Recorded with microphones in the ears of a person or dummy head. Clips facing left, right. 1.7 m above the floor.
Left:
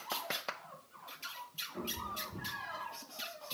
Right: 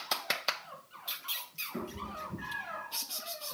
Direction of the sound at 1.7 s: 65° right (ahead or behind).